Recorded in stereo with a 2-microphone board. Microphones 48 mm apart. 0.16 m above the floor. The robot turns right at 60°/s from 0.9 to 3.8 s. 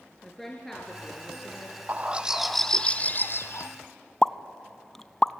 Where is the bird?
35° right, 1.1 m; by 3.7 s 70° left, 1.1 m.